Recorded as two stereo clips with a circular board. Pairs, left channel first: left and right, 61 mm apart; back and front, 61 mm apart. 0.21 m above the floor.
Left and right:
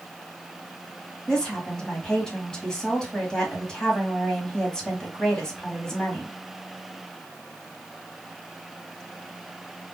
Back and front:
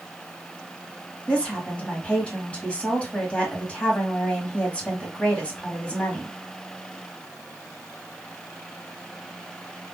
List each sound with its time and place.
1.3 s a woman speaking: 150° left, 1.2 m